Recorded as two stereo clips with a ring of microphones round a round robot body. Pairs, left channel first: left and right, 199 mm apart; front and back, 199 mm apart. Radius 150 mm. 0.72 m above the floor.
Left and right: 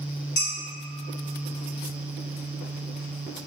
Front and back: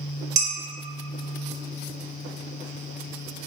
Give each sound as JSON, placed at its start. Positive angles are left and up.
{"t": 0.4, "sound": "dishes clattering", "azimuth_deg": 145, "distance_m": 1.2}